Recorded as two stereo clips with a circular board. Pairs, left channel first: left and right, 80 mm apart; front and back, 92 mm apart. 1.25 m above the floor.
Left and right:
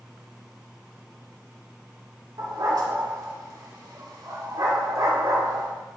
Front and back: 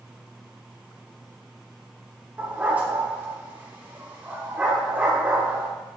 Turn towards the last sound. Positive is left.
turn(degrees=-110)